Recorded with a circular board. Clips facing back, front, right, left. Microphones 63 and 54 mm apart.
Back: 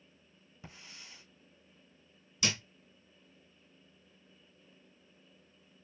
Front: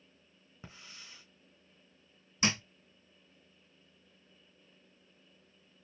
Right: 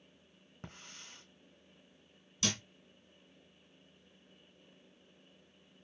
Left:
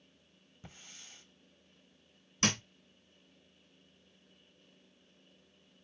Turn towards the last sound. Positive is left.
turn(degrees=55)